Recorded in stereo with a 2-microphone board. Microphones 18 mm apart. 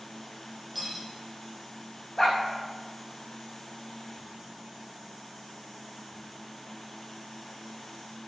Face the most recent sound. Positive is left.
turn(degrees=15)  # may be behind; listen again after turning